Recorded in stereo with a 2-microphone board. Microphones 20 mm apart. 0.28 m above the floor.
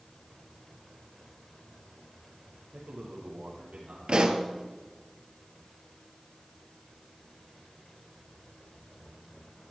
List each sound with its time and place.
2.7 s a man speaking: 60° right (ahead or behind), 8.5 m; by 4.0 s 65° right (ahead or behind), 8 m
4.1 s a pop: 50° right (ahead or behind), 2.0 m